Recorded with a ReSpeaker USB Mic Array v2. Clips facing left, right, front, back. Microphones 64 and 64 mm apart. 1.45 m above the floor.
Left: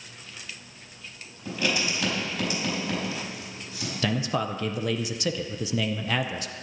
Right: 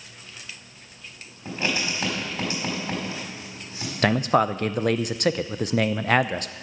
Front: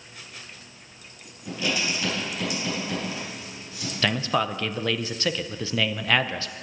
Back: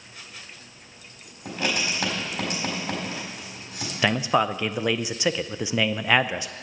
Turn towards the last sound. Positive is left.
turn(degrees=-110)